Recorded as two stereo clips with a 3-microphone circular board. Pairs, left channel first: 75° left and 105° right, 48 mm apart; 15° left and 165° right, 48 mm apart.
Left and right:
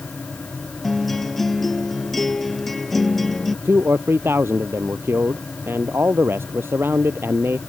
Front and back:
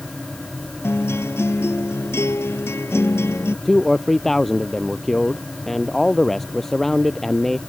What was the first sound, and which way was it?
A guitar, 10° right.